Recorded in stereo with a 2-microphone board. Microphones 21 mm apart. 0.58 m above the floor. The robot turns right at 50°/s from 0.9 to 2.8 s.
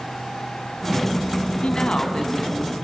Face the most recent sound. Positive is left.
turn(degrees=175)